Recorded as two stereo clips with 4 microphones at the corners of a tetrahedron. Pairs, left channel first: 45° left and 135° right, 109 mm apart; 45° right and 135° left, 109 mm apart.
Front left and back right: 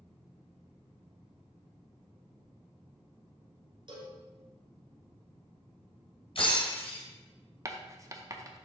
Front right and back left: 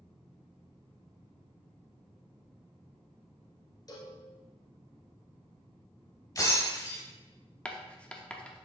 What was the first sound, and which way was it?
A cowbell, 95° right.